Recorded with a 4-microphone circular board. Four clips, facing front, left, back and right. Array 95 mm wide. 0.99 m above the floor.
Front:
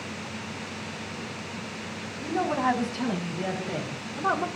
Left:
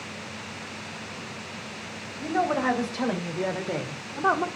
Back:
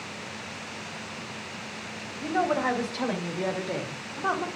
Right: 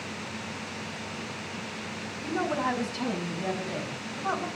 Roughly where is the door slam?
No door slam in this recording.